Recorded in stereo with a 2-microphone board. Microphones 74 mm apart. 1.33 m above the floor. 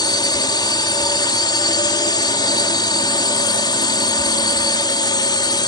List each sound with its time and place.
0.0 s a drone: 75° left (ahead or behind)